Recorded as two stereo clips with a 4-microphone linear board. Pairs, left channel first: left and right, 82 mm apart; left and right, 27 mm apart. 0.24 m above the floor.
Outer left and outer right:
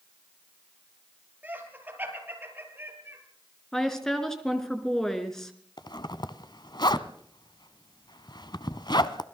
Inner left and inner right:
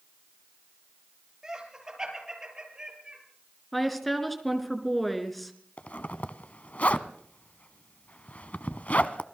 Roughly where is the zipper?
Left.